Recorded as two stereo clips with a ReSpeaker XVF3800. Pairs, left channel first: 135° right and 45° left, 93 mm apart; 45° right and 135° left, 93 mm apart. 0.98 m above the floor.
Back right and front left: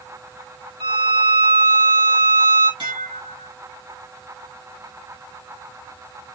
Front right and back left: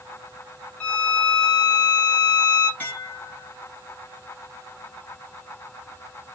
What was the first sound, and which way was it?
A violin, 35° left.